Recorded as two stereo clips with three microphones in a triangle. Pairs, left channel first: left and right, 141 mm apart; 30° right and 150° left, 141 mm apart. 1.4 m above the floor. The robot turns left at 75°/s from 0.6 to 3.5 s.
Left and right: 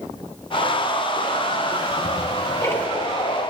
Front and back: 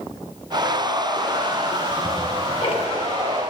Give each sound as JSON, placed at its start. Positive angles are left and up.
{"t": 1.7, "sound": "ticking", "azimuth_deg": 90, "distance_m": 1.2}